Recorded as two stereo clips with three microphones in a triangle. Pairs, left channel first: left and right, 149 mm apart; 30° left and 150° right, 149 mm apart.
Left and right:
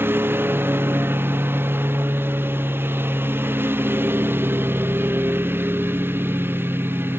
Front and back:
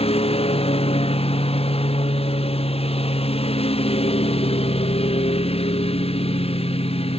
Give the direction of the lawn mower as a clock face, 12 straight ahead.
12 o'clock.